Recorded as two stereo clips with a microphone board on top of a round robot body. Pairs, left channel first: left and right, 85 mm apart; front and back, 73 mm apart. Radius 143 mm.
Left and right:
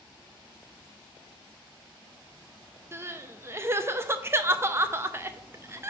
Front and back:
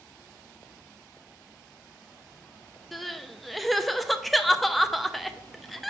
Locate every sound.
2.9 s crying: 90° right, 0.8 m